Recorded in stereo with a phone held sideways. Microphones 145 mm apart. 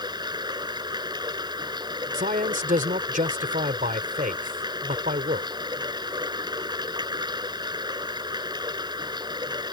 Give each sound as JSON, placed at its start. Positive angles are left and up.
{"t": 0.0, "sound": "running water", "side_deg": -30}
{"t": 2.1, "sound": "a man speaking", "side_deg": -75}